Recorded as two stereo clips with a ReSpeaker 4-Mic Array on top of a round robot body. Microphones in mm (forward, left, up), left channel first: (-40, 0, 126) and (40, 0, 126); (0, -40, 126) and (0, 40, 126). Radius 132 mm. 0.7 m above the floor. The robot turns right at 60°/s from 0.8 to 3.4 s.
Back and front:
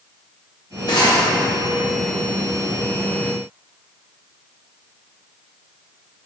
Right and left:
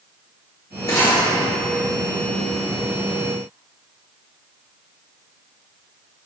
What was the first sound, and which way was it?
Cutlery clinking, 145° right.